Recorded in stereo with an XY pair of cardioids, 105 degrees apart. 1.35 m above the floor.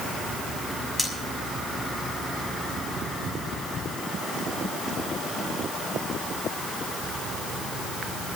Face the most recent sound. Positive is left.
turn(degrees=0)